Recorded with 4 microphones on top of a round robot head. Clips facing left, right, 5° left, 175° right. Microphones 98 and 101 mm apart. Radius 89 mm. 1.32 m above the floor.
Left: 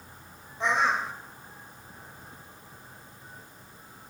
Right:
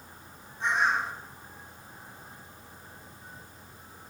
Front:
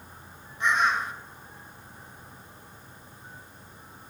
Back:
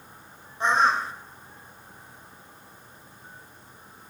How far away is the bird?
About 1.6 m.